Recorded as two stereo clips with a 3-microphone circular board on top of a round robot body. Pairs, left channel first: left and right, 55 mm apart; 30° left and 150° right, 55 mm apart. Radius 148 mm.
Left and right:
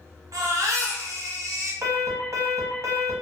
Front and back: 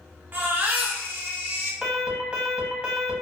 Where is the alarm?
80° right, 1.2 m.